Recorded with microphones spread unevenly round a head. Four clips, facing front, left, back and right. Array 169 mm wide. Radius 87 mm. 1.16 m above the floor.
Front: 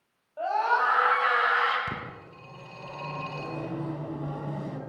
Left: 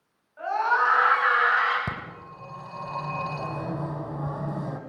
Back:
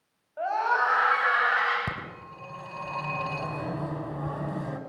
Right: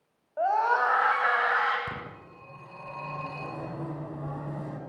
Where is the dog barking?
No dog barking in this recording.